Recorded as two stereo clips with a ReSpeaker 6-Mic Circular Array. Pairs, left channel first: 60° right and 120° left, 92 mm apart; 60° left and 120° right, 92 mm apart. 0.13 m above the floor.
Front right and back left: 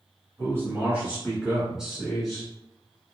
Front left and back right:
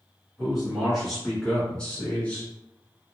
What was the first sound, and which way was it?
A man speaking, 160° left.